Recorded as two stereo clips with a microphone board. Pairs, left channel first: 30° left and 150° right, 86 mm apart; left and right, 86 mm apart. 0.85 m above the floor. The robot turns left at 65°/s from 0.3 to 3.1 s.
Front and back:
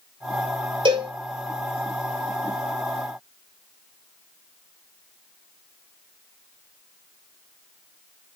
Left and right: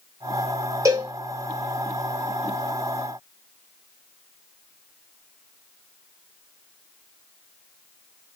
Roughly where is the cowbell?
Behind right.